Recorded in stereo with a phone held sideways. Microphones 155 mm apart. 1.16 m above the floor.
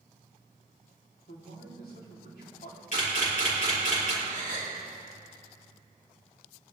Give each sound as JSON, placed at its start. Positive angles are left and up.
{"t": 1.3, "sound": "a man speaking", "side_deg": 80, "distance_m": 3.0}
{"t": 2.9, "sound": "a camera shutter", "side_deg": 55, "distance_m": 4.0}
{"t": 4.2, "sound": "a gasp", "side_deg": 70, "distance_m": 5.0}